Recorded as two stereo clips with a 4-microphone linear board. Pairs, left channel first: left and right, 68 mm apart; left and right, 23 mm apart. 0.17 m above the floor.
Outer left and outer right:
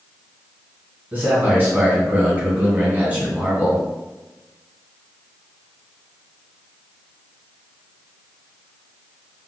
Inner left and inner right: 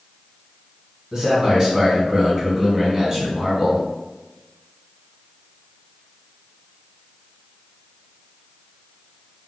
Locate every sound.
1.1 s a man speaking: 25° right (ahead or behind), 1.8 m